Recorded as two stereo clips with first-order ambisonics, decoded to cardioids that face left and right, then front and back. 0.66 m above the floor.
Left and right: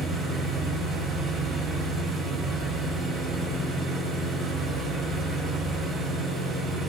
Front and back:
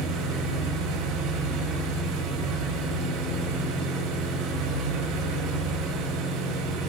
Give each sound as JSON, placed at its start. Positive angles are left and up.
{"t": 0.0, "sound": "an engine running", "azimuth_deg": 170, "distance_m": 7.5}